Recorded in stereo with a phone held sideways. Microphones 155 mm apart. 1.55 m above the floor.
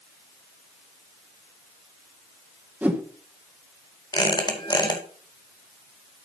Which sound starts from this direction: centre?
A whoosh, at 2.8 s.